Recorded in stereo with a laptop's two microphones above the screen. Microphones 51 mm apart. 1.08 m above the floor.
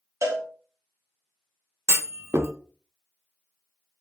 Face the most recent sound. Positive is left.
turn(degrees=-55)  # may be behind; listen again after turning